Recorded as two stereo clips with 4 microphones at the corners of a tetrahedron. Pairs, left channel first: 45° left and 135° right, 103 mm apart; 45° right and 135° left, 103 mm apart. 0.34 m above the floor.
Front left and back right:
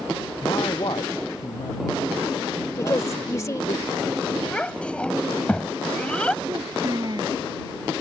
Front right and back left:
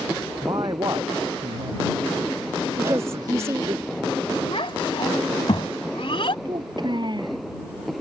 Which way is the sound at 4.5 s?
30° right.